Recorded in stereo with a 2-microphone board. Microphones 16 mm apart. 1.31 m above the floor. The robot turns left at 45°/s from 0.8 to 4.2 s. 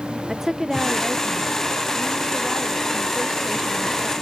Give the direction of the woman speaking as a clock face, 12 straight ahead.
1 o'clock.